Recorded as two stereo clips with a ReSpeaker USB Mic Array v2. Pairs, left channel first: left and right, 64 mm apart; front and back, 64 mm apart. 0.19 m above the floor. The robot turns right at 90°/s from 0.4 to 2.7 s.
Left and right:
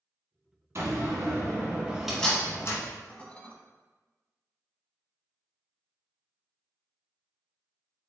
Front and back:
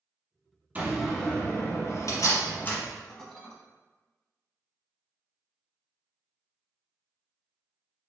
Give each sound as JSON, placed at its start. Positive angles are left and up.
{"t": 0.8, "sound": "a door slam", "azimuth_deg": -125, "distance_m": 1.3}
{"t": 3.1, "sound": "dishes clattering", "azimuth_deg": 65, "distance_m": 0.8}